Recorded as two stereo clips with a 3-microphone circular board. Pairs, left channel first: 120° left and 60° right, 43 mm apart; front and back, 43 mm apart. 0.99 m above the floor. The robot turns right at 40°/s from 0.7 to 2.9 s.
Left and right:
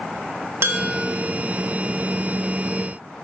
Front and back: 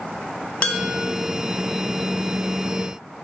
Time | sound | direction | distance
0.6 | dishes clattering | 50° right | 1.4 m